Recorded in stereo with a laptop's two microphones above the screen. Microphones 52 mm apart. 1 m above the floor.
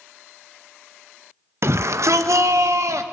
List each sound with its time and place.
1.6 s a shout: 55° right (ahead or behind), 0.6 m; by 3.0 s 75° right (ahead or behind), 1.6 m